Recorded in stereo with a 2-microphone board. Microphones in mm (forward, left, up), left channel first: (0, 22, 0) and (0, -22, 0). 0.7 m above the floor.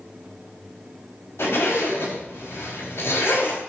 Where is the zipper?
75° left (ahead or behind), 5 m.